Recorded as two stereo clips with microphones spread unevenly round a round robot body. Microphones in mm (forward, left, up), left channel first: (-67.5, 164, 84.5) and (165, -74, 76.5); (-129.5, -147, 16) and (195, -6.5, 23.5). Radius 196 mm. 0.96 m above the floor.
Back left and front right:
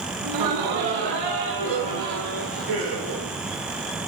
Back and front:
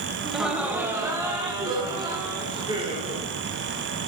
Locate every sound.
0.2 s laughter: 65° right, 1.4 m; by 3.3 s 50° right, 4 m